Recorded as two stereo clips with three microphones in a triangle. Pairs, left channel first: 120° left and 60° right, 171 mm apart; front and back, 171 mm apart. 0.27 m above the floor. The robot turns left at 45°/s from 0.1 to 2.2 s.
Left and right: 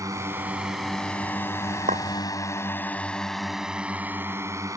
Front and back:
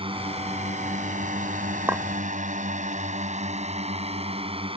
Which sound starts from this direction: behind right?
A drone, at 0.0 s.